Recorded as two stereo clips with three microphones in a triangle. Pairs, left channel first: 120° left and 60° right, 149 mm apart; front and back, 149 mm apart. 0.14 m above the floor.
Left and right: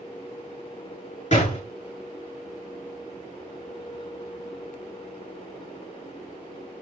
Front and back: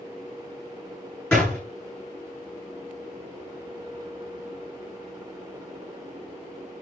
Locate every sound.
1.3 s a door slam: 85° left, 8.5 m